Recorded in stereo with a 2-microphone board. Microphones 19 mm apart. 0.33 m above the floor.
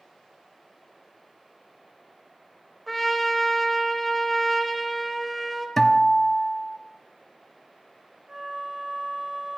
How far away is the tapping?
I don't hear tapping.